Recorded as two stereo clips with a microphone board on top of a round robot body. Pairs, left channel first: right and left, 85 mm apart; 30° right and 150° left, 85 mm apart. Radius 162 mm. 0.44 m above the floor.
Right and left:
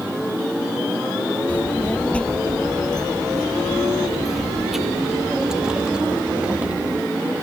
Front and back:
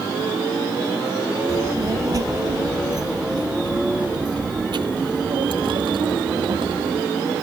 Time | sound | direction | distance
1.5 | a child speaking | 160° right | ?